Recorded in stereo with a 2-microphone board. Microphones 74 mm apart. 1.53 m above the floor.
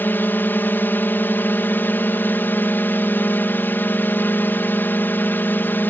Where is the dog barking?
I don't hear a dog barking.